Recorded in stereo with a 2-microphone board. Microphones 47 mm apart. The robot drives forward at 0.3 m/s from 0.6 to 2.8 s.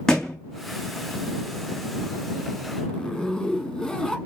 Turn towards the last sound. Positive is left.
turn(degrees=5)  # may be behind; listen again after turning